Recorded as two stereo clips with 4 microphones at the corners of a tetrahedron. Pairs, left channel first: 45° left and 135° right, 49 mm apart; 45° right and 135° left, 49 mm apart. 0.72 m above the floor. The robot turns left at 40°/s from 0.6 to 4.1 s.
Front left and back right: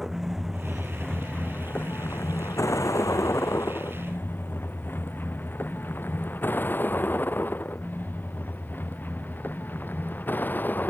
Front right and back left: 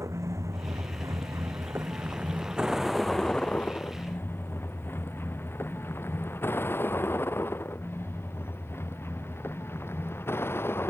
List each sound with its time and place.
0.0 s a vehicle: 140° left; by 10.9 s 10° right